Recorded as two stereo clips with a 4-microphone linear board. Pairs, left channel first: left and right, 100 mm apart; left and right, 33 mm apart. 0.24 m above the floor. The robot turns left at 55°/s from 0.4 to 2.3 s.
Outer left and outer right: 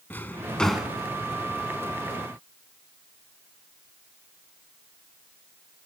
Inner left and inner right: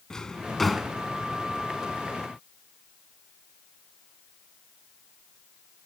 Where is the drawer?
20° left (ahead or behind), 0.6 m; by 0.9 s 10° right (ahead or behind), 0.6 m.